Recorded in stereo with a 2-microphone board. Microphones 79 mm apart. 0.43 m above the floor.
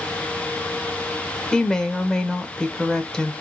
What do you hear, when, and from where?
1.5 s a woman speaking: 10° left (ahead or behind), 1.3 m